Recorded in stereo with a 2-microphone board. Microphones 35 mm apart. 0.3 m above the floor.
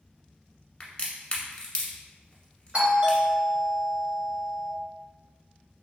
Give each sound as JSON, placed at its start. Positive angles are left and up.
{"t": 0.8, "sound": "a crack", "side_deg": 25, "distance_m": 1.1}
{"t": 2.7, "sound": "a doorbell", "side_deg": -35, "distance_m": 1.6}